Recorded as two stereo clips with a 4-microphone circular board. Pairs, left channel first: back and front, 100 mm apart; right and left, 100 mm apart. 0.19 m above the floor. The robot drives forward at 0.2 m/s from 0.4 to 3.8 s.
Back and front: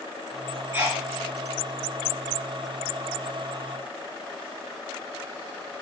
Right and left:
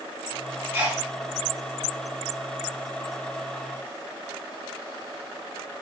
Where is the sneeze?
50° left, 1.9 m.